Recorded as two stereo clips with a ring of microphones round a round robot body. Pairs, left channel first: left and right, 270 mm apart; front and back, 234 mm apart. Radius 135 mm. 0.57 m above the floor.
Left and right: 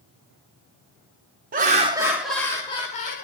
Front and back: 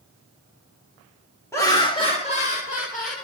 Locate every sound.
1.5 s laughter: 70° right, 0.9 m; by 3.2 s 40° left, 1.1 m